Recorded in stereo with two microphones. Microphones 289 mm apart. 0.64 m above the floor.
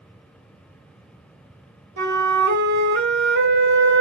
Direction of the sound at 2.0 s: 70° right (ahead or behind).